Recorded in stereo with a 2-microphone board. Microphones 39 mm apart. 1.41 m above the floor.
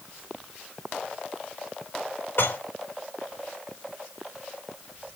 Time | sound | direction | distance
2.4 | dishes clattering | 85° left | 4 m